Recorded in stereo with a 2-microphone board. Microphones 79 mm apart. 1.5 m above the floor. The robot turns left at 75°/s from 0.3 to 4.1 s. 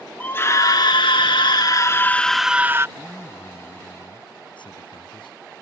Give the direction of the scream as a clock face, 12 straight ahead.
7 o'clock.